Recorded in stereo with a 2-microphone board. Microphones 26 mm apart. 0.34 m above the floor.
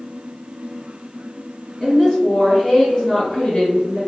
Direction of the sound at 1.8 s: 5° right (ahead or behind).